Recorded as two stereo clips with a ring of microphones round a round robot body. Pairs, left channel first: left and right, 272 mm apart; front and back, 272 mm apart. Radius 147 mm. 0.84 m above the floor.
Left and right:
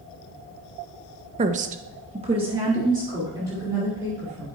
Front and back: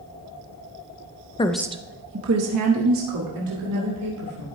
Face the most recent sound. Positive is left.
turn(degrees=-170)